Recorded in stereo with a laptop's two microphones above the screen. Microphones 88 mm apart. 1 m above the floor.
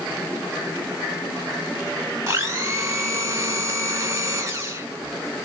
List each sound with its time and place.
2.3 s a blender: 30° right (ahead or behind), 1.0 m